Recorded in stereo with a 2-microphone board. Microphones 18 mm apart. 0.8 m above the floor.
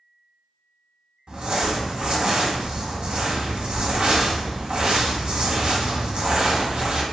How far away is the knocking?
No knocking in this recording.